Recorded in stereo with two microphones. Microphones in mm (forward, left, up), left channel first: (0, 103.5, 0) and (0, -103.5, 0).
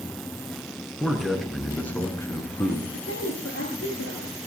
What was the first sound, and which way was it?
A man speaking, centre (ahead or behind).